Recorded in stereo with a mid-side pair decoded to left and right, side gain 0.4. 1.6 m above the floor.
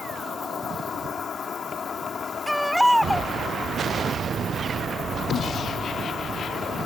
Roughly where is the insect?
Ahead left.